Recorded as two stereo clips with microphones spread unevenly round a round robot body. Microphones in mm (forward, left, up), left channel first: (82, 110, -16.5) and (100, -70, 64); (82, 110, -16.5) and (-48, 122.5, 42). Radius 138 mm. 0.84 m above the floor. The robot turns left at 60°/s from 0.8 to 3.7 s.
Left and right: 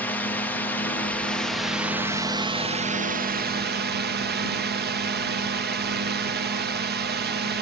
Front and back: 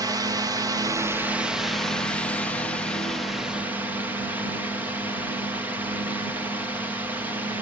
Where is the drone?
95° left; by 7.6 s 80° right.